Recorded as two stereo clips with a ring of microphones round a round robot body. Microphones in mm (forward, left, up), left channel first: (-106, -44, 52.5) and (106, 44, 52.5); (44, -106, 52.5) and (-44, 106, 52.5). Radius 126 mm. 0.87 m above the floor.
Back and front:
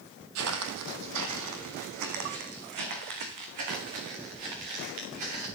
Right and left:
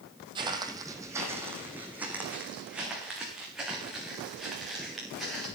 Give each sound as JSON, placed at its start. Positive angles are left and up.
{"t": 0.3, "sound": "footsteps", "azimuth_deg": 45, "distance_m": 1.5}